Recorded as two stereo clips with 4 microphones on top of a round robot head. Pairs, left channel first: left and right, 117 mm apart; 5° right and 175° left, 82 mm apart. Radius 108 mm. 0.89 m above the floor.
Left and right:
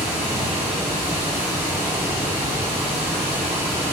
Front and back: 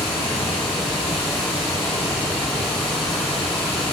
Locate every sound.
0.0 s running water: 15° right, 3.5 m